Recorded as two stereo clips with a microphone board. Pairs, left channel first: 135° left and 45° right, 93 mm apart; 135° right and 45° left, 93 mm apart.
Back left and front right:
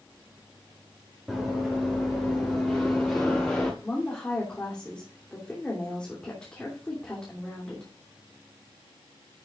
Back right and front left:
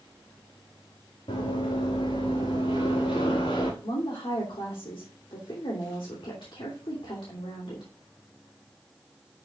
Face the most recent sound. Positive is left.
turn(degrees=-145)